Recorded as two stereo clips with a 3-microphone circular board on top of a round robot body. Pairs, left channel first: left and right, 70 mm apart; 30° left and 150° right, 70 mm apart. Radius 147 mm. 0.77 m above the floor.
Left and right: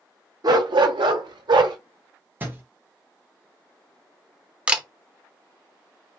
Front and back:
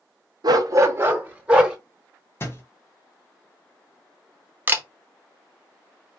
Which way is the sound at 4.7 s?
150° right.